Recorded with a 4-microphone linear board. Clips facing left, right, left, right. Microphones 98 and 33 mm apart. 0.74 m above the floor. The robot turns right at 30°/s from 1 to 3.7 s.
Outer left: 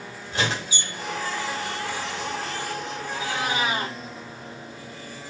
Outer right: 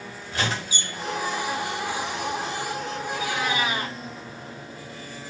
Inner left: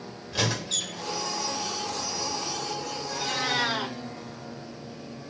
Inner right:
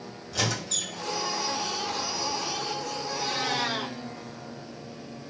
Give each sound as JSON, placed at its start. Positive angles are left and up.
{"t": 0.3, "sound": "a squeak", "side_deg": 25, "distance_m": 1.6}
{"t": 3.1, "sound": "a cat meowing", "side_deg": 55, "distance_m": 2.5}